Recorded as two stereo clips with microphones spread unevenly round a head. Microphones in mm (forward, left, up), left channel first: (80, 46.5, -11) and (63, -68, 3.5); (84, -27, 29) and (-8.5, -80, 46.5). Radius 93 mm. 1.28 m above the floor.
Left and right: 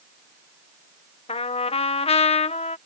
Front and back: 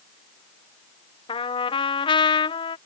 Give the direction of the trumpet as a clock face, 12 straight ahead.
10 o'clock.